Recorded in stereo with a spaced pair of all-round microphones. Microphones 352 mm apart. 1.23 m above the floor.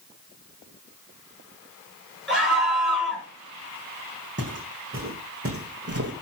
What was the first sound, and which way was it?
A scream, centre (ahead or behind).